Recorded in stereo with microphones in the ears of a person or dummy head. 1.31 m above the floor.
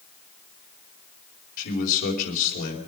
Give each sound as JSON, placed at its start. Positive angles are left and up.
{"t": 1.6, "sound": "a man speaking", "side_deg": 50, "distance_m": 4.5}